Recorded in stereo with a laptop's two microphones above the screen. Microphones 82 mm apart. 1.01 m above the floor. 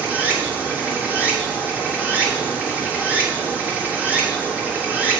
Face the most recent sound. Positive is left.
turn(degrees=-20)  # may be behind; listen again after turning